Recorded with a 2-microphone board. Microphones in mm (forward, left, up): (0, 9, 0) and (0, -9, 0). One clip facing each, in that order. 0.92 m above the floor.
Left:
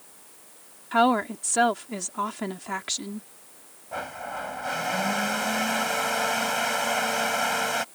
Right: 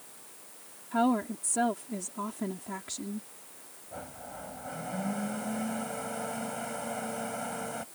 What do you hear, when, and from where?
0.9 s a woman speaking: 55° left (ahead or behind)
3.9 s a blender: 75° left (ahead or behind)